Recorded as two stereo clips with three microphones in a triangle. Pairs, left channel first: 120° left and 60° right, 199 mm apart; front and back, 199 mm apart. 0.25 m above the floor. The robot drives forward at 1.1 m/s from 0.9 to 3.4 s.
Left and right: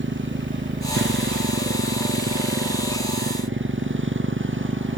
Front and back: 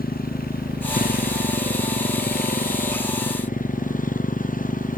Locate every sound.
0.0 s a motorcycle: 40° right; by 5.0 s 45° right